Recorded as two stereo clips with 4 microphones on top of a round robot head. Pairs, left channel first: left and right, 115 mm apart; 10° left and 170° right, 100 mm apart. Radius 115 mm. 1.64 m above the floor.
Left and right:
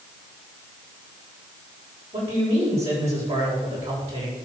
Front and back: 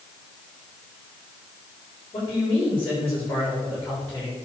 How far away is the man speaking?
About 7.5 m.